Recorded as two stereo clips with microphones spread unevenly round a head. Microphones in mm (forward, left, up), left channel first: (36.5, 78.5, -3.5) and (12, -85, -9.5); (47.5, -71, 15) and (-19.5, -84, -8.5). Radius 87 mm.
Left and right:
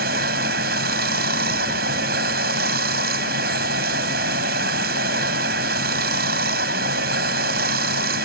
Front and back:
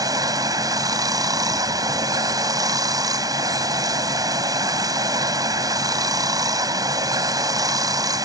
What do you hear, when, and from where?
0.0 s running water: 140° right